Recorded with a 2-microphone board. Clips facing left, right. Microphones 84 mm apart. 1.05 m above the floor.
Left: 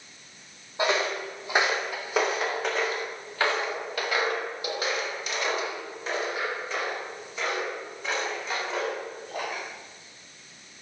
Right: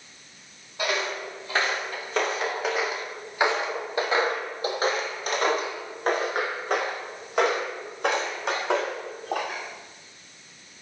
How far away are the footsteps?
About 2.5 m.